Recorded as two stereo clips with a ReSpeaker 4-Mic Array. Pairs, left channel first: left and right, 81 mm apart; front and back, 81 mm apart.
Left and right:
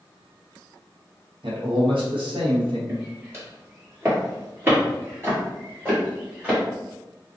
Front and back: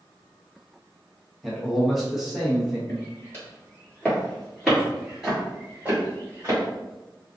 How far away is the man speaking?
About 1.0 m.